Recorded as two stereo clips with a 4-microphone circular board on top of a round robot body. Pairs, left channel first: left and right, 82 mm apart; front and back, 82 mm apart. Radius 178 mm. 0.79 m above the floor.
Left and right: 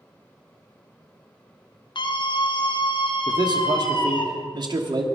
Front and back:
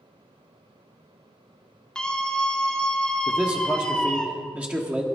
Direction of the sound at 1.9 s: 80° left.